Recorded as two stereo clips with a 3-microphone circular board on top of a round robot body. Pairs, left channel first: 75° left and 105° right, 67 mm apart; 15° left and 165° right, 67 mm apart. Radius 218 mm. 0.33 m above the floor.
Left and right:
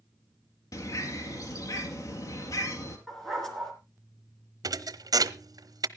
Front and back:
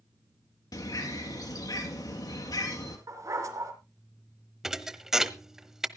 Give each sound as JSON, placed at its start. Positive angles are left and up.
{"t": 0.7, "sound": "a bird", "azimuth_deg": 40, "distance_m": 2.0}
{"t": 3.1, "sound": "a dog barking", "azimuth_deg": 160, "distance_m": 3.5}
{"t": 4.6, "sound": "a thud", "azimuth_deg": -80, "distance_m": 0.8}